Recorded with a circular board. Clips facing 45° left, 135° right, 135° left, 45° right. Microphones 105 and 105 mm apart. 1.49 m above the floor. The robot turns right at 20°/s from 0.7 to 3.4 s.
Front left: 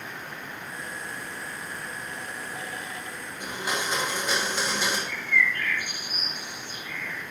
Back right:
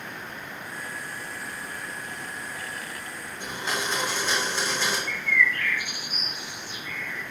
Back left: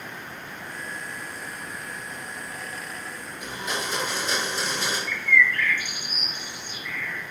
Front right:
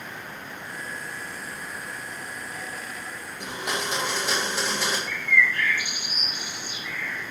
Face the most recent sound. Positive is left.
turn(degrees=-120)